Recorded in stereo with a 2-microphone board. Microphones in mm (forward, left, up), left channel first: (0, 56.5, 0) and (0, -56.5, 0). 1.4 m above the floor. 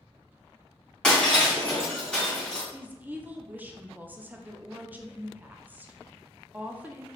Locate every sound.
1.0 s breaking glass: 5° left (ahead or behind), 2 m
2.7 s a woman speaking: 15° right (ahead or behind), 0.6 m